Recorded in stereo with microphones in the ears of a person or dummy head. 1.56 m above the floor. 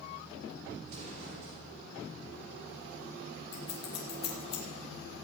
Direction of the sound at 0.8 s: 40° right (ahead or behind).